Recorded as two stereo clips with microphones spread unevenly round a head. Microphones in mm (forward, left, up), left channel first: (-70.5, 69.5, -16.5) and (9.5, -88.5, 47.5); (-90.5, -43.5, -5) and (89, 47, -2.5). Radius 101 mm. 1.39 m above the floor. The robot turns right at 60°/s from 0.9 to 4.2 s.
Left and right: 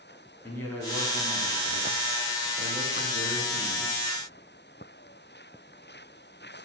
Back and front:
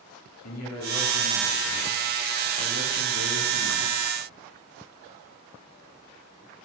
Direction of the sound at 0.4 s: 165° right.